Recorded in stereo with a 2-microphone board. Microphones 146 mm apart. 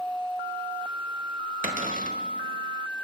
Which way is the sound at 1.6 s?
65° right (ahead or behind).